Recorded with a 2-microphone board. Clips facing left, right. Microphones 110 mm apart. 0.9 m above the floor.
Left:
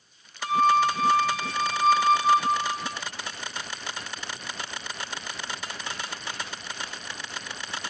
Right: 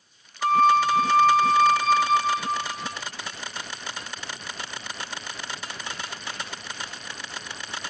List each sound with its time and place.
0.4 s a flute: 50° right (ahead or behind), 0.8 m